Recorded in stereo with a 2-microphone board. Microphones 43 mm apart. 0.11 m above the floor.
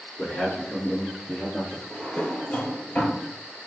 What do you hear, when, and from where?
0.2 s a man speaking: 30° left (ahead or behind), 1.2 m; by 1.8 s 10° right (ahead or behind), 1.5 m
1.9 s a drawer: 40° left (ahead or behind), 1.1 m